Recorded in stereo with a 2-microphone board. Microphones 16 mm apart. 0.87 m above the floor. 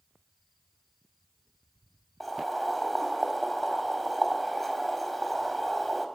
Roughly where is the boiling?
Centre.